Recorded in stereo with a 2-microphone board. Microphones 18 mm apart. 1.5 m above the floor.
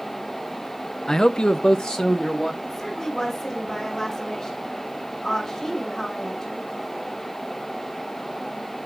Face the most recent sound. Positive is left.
turn(degrees=35)  # may be behind; listen again after turning